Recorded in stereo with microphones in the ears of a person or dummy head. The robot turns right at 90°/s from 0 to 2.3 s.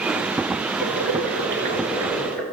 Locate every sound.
0.8 s boiling: 125° right, 5.5 m; by 2.4 s 10° left, 5.5 m